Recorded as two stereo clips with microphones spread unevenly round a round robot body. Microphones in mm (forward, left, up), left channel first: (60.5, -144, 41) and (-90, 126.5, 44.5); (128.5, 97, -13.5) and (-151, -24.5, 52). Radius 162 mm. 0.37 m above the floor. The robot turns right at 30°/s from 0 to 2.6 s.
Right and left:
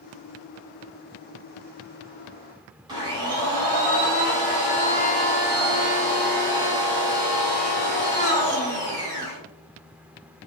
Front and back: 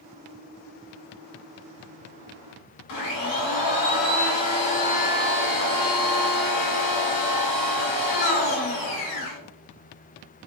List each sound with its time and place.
2.9 s a blender: 40° left, 1.4 m